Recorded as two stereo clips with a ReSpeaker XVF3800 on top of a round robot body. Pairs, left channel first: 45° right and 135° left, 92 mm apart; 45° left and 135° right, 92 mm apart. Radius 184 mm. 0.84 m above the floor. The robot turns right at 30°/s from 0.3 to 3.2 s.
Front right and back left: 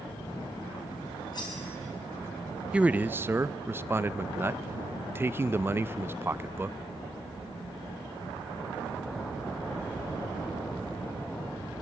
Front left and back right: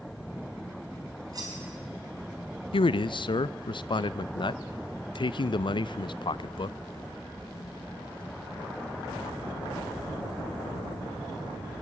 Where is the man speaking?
60° left, 0.6 m; by 6.8 s 70° left, 0.6 m.